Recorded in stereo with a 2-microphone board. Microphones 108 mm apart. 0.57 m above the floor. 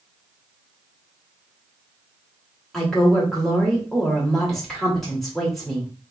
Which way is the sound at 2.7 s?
5° left (ahead or behind).